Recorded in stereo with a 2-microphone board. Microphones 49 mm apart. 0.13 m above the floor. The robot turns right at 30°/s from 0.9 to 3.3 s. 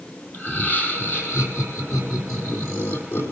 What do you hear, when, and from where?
0.3 s laughter: 35° left, 4.5 m; by 3.3 s 110° left, 4.5 m